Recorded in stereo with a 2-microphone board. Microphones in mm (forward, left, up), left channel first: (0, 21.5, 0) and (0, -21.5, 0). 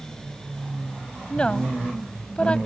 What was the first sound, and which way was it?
A woman speaking, 25° left (ahead or behind).